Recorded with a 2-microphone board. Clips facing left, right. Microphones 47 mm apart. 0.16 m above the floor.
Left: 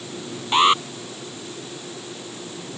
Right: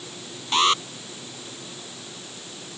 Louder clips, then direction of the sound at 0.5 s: Left 4 dB; 20° left (ahead or behind).